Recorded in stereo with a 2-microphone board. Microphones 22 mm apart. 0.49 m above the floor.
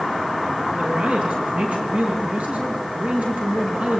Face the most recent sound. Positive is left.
turn(degrees=-75)  # may be behind; listen again after turning